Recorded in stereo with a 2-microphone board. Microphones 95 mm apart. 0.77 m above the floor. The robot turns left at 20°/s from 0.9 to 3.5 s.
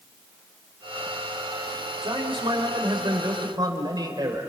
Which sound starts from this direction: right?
A man speaking, at 2.0 s.